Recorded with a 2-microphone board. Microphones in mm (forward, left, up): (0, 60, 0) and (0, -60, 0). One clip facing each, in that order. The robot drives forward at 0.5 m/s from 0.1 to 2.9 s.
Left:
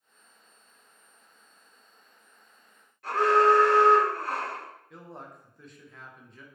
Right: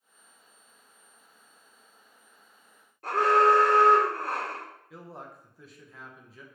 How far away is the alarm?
About 1.1 m.